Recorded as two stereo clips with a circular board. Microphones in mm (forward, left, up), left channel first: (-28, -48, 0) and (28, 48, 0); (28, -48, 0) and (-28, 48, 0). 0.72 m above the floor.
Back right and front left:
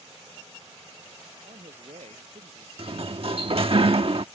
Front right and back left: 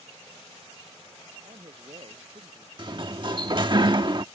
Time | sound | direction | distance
1.4 | a man speaking | 85° left | ?
2.8 | a sliding door | 85° left | ?